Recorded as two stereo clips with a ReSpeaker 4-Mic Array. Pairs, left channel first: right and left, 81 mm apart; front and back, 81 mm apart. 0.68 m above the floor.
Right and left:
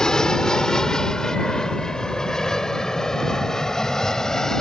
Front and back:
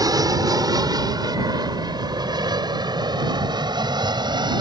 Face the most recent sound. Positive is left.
turn(degrees=-175)